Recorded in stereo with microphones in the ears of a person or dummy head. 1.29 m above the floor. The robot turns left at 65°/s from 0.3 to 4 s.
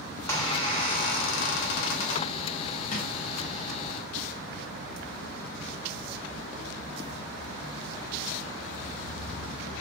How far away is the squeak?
About 0.8 m.